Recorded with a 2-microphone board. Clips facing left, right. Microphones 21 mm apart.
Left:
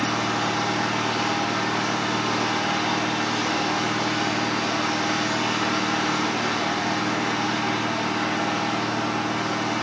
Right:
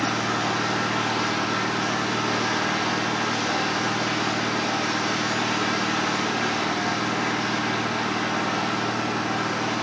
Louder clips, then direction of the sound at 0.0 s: Even; centre (ahead or behind).